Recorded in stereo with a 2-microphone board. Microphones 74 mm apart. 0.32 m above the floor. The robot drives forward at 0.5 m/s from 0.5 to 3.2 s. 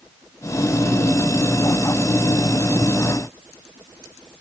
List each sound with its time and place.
Only background noise.